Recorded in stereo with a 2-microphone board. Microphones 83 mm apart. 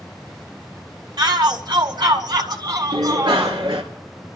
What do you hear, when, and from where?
1.2 s a shout: 60° right (ahead or behind), 2 m; by 3.6 s 45° right (ahead or behind), 2.5 m
2.9 s a bicycle bell: 70° right (ahead or behind), 2.5 m